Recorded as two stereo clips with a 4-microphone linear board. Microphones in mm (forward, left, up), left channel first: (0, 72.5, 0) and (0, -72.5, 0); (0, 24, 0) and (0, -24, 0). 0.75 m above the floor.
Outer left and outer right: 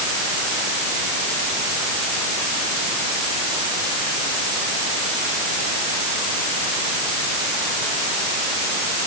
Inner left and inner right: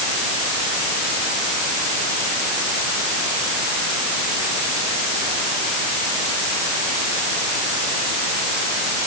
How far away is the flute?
No flute in this recording.